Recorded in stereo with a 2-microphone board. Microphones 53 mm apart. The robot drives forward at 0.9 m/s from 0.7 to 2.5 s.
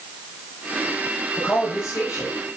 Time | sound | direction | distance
1.4 | a man speaking | 75° left (ahead or behind) | 7.5 m